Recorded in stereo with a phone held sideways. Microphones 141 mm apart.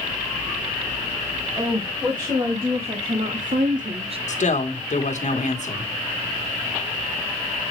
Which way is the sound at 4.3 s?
60° left (ahead or behind).